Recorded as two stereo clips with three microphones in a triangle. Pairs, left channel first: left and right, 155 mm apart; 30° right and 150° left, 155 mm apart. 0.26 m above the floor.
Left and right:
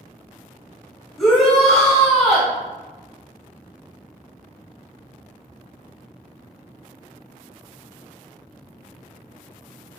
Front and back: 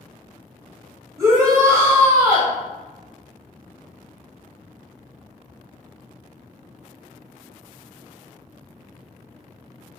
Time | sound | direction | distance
1.2 | a shout | straight behind | 1.3 m